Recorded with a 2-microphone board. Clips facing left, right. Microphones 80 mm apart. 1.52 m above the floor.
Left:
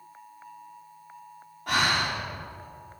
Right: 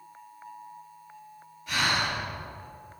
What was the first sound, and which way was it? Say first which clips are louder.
Breathing: left 2 dB; 60° left (ahead or behind).